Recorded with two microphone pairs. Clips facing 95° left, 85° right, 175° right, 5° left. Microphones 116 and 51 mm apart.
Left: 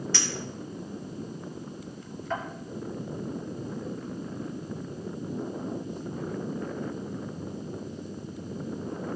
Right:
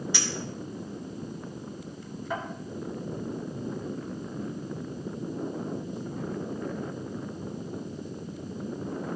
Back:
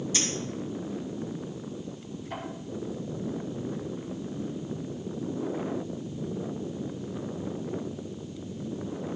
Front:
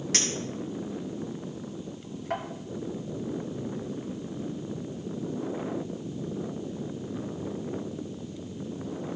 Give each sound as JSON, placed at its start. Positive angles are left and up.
{"t": 0.1, "sound": "a clink", "azimuth_deg": -5, "distance_m": 3.0}